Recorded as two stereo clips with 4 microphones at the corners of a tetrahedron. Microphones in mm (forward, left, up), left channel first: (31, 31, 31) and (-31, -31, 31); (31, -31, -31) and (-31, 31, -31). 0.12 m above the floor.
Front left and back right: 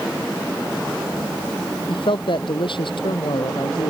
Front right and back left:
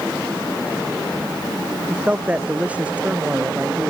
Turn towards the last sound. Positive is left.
turn(degrees=60)